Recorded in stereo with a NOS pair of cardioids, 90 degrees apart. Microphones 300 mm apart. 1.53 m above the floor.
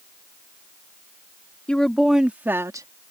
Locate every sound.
1.7 s a woman speaking: 5° left; by 2.9 s 10° right